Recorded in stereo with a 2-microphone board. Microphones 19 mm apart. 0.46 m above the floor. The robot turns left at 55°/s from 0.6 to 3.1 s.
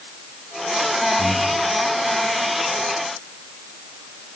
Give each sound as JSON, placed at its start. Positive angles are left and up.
{"t": 1.2, "sound": "breathing", "side_deg": -70, "distance_m": 4.0}